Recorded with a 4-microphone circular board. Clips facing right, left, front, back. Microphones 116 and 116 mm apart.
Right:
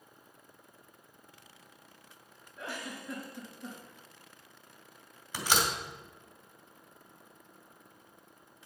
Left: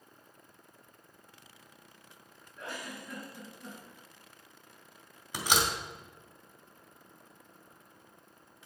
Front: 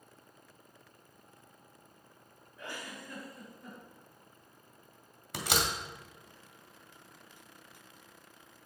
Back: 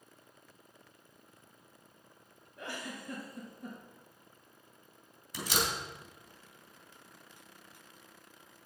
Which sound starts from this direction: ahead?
A door slam, at 5.3 s.